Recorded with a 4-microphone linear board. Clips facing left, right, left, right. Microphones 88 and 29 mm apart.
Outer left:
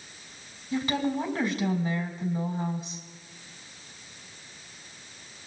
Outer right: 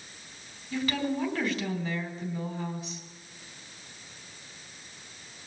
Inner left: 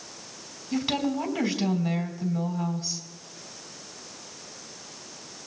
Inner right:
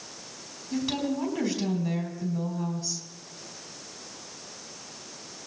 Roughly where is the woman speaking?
Left.